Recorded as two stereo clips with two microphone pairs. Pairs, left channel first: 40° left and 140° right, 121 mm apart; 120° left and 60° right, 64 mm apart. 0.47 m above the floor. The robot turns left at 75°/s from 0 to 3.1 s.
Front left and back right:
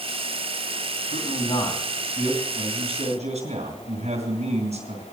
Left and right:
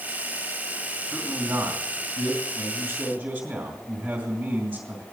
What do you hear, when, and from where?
1.1 s a man speaking: 20° left, 3 m; by 5.0 s 130° right, 3 m